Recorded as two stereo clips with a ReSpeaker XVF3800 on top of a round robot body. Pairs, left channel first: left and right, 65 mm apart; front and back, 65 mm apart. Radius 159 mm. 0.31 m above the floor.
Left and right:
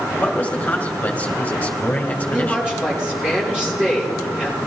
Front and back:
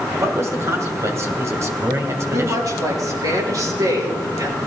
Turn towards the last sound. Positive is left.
turn(degrees=-165)